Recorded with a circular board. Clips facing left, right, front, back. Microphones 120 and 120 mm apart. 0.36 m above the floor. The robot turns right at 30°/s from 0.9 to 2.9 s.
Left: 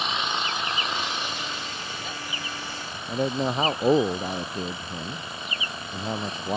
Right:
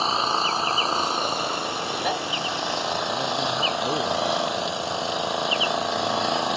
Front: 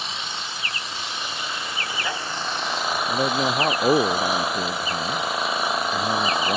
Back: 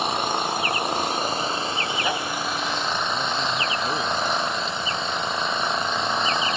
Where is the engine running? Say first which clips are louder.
Right 5 dB, back 10 dB; 145° right; by 6.6 s 85° right.